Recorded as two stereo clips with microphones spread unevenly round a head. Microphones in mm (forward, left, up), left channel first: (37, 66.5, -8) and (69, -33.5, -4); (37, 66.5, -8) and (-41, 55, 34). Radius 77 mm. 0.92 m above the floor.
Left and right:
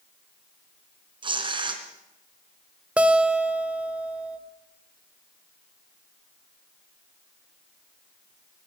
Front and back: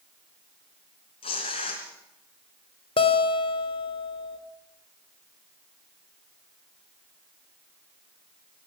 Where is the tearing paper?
35° right, 3 m.